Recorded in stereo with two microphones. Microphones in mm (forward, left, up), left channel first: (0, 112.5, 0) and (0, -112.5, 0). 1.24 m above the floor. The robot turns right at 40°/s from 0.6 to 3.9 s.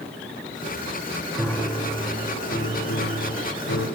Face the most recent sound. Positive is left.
turn(degrees=105)